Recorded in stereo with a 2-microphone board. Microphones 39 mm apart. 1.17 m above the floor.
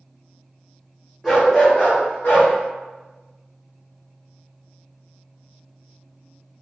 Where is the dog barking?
5° left (ahead or behind), 0.9 m; by 2.5 s 65° left (ahead or behind), 1.7 m.